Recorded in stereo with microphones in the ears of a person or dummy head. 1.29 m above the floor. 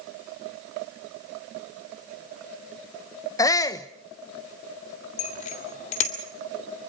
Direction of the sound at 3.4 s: 20° left (ahead or behind).